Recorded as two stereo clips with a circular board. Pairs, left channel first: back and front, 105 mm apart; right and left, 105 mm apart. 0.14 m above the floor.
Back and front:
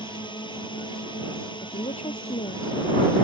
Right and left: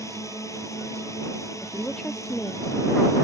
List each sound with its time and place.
0.0 s a drone: 145° right
1.6 s a woman speaking: 170° right